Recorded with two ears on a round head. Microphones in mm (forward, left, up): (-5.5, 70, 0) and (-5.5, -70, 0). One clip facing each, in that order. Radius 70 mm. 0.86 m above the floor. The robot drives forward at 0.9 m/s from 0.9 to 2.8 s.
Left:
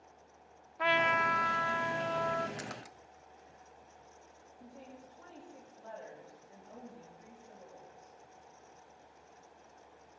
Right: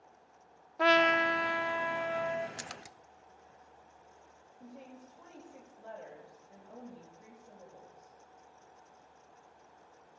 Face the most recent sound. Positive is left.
turn(degrees=-20)  # may be behind; listen again after turning